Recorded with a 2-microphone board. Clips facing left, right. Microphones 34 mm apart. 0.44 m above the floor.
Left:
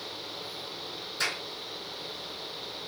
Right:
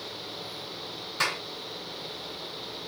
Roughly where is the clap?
Right.